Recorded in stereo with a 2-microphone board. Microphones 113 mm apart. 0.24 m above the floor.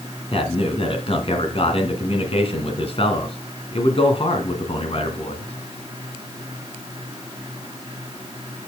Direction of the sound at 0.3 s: 50° left (ahead or behind).